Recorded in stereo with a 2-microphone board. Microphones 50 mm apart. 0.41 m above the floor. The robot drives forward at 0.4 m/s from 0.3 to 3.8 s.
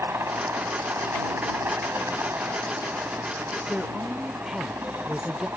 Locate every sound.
0.0 s a helicopter: 60° right (ahead or behind)
3.7 s a woman speaking: 10° right (ahead or behind)